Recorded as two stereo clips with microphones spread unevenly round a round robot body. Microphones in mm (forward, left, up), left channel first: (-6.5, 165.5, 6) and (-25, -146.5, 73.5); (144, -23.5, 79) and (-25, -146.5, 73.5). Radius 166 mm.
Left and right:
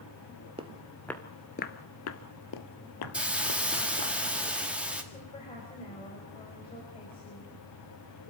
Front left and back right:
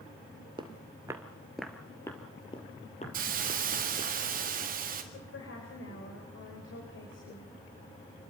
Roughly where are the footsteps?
Right.